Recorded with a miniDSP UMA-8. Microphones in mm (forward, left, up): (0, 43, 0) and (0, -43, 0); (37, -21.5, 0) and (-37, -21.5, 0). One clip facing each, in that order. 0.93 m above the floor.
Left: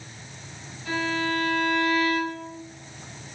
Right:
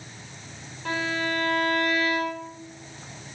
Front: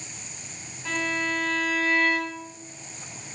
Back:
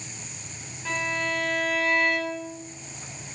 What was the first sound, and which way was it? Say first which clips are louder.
A violin: left 1 dB, even; 95° right.